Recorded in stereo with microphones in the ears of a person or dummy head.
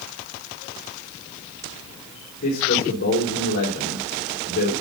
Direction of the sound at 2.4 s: 50° left (ahead or behind).